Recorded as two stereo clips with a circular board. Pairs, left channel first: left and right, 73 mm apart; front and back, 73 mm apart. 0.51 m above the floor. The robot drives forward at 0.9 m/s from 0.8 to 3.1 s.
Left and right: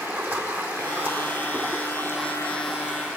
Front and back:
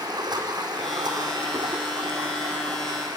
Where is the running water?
160° right, 4 m; by 3.2 s 165° right, 6 m.